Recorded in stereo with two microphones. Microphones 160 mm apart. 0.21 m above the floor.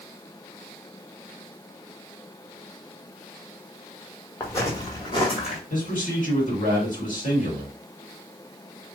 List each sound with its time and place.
4.4 s footsteps: 15° left (ahead or behind), 1.5 m; by 5.6 s 45° left (ahead or behind), 1.5 m
5.7 s a man speaking: 55° left (ahead or behind), 1.9 m